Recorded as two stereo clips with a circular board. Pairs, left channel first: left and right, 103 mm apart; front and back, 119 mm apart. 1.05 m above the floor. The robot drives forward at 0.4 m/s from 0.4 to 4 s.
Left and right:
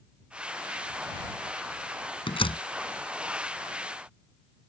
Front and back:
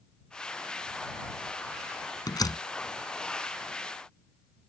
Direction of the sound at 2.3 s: 55° left.